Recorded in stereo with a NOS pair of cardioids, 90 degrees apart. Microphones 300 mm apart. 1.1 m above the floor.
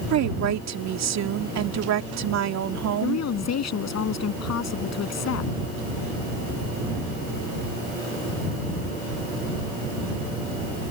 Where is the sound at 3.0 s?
60° left.